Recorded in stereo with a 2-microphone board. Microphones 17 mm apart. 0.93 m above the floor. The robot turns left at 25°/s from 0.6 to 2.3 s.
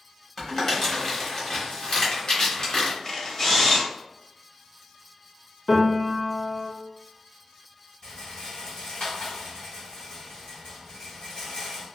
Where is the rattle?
50° left (ahead or behind), 1.6 m.